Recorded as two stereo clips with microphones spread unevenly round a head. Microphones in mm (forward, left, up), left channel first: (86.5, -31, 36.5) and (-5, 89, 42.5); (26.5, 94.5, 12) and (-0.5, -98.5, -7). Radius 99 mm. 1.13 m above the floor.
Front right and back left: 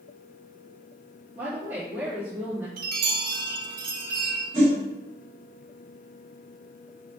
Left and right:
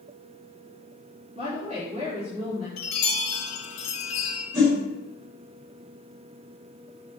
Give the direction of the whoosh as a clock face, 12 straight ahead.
6 o'clock.